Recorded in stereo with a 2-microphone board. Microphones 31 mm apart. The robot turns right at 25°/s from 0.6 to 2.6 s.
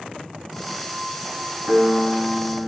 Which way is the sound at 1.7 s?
50° right (ahead or behind).